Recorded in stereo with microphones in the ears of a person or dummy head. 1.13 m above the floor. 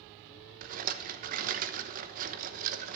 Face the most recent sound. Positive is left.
turn(degrees=-45)  # may be behind; listen again after turning